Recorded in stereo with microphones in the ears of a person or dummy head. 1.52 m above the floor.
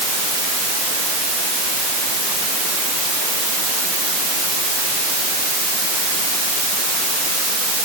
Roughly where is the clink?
I don't hear a clink.